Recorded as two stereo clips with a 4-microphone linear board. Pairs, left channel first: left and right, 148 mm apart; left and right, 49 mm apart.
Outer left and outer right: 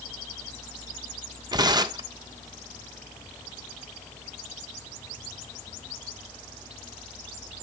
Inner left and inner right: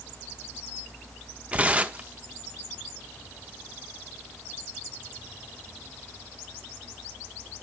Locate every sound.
1.5 s tearing paper: 30° right (ahead or behind), 0.8 m